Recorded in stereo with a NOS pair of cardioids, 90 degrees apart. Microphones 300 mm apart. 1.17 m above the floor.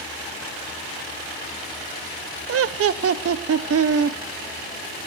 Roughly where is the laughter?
Ahead right.